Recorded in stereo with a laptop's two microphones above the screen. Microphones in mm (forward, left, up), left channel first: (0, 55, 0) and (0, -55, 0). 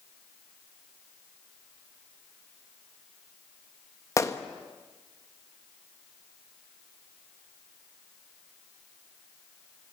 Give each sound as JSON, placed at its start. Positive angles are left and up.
{"t": 4.2, "sound": "a gunshot", "side_deg": 30, "distance_m": 1.5}